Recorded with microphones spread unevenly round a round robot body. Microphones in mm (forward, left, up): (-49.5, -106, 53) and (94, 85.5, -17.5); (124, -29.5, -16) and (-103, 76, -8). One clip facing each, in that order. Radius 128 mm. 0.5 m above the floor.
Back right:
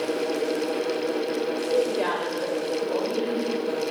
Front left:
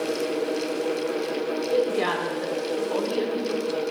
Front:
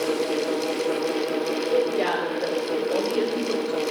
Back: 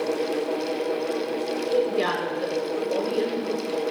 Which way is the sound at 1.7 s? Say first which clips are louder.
Front left 1 dB, even; 105° left.